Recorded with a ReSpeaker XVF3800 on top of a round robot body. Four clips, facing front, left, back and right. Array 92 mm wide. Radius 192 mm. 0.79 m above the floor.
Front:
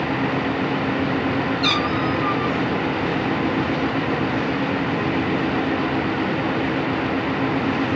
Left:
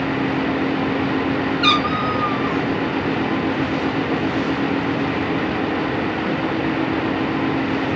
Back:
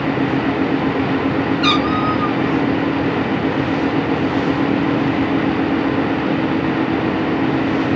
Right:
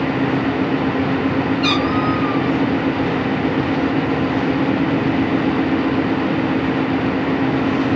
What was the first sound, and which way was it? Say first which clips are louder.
A cat meowing: right 1 dB, back 5 dB; 115° left.